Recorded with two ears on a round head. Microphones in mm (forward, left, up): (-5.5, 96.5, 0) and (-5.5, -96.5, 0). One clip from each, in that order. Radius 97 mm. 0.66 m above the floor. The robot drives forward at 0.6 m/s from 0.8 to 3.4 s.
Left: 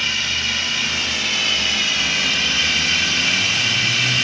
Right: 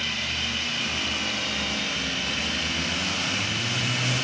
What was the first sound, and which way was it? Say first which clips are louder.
Running water: left 7 dB; 45° left (ahead or behind).